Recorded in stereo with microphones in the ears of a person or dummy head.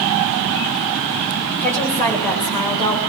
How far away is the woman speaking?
About 9 m.